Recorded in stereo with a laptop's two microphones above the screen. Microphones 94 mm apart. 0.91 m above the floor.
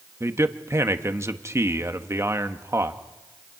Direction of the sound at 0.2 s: 30° right (ahead or behind).